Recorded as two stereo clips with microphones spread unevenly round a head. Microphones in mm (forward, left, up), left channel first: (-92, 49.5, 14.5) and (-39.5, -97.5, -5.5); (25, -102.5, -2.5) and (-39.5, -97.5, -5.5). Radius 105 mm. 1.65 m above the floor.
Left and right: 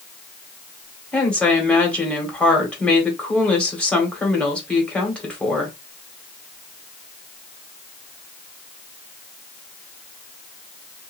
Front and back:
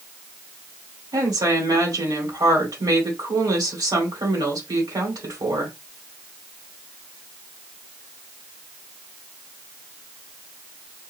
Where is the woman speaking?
165° right, 1.8 m.